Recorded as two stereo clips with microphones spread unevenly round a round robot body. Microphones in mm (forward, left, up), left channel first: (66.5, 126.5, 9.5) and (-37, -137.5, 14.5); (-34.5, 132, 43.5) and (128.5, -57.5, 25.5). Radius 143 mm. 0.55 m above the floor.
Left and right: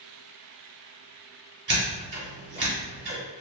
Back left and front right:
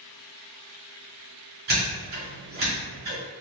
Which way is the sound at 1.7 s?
75° right.